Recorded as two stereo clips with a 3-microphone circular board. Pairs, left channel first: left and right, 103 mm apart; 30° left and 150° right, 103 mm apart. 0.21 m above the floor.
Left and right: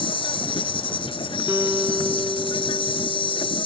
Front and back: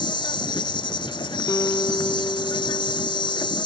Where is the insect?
65° left.